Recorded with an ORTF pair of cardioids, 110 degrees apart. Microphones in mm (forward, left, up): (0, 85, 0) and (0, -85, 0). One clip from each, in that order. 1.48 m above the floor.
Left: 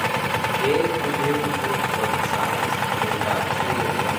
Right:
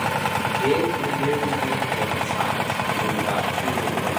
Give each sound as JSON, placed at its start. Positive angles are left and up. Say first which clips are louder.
{"t": 0.6, "sound": "a man speaking", "louder": "left 1 dB", "azimuth_deg": 5, "distance_m": 4.0}